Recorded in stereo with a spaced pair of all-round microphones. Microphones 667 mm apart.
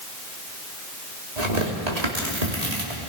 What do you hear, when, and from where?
1.4 s tearing paper: 70° right (ahead or behind), 2.5 m